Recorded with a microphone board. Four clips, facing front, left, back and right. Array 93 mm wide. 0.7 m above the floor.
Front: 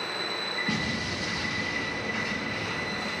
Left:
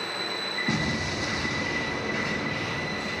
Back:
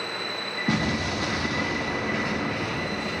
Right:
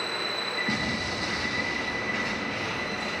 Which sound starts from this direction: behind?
An explosion, at 0.7 s.